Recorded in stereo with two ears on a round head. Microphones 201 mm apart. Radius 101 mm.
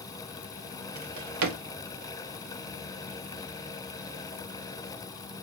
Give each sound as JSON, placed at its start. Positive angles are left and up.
{"t": 0.9, "sound": "a drawer", "side_deg": -85, "distance_m": 0.6}